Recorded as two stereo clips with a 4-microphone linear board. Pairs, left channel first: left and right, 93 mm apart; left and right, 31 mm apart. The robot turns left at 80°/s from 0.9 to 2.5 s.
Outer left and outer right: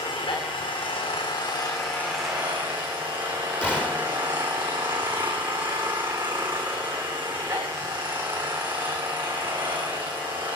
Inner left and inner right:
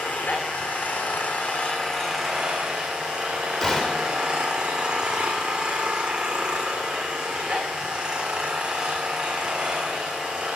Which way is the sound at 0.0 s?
105° left.